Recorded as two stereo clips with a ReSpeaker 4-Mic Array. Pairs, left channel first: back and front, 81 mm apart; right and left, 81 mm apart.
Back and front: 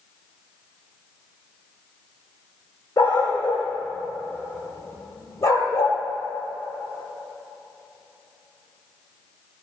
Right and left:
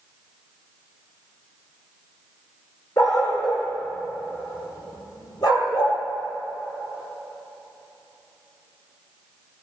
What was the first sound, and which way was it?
A dog barking, 120° right.